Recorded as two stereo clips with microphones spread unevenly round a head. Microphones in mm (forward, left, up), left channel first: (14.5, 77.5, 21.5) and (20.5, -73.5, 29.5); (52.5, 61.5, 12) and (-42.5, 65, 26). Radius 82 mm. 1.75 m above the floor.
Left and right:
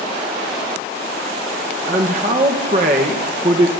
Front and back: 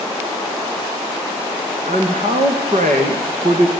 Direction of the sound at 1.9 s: 140° right.